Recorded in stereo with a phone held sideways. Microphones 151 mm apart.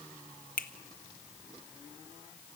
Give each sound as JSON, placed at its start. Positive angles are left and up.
{"t": 0.6, "sound": "a finger snap", "side_deg": 70, "distance_m": 1.1}